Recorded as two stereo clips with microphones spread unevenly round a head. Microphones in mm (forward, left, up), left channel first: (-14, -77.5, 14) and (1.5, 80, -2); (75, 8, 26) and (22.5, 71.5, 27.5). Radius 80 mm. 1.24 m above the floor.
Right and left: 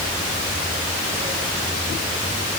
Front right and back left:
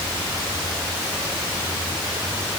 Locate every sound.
Only background noise.